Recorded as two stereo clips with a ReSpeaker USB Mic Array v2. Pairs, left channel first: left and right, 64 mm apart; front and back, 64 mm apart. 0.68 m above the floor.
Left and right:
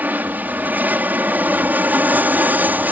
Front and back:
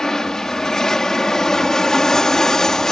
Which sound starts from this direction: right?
An aircraft, at 0.0 s.